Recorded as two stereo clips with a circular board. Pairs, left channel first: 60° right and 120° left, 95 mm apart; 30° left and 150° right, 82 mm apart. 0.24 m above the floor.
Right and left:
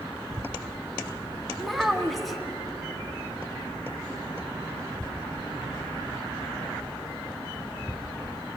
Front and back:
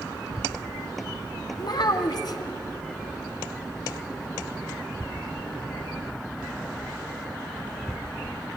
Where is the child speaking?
30° left, 1.7 m.